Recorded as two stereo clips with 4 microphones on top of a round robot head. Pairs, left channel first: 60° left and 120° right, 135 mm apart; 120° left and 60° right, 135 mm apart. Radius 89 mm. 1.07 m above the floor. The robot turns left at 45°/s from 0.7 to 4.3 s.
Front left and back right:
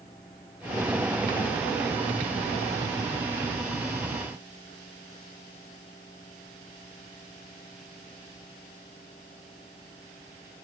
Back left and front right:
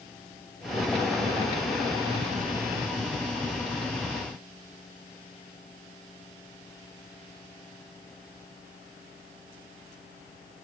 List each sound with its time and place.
Only background noise.